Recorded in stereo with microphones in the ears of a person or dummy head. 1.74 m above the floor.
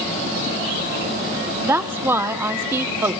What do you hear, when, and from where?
1.6 s a woman speaking: 15° right (ahead or behind), 1.0 m